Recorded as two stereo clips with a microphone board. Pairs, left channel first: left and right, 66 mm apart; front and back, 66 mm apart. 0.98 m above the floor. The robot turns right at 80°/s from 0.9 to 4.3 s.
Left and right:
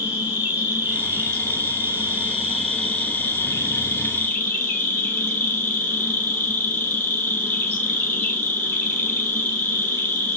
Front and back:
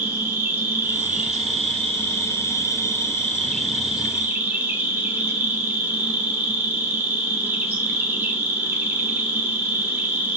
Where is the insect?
140° right, 0.8 m; by 10.4 s 135° left, 0.8 m.